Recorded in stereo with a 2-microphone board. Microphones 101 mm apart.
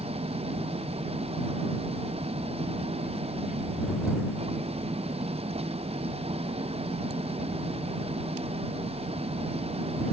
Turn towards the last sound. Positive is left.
turn(degrees=-80)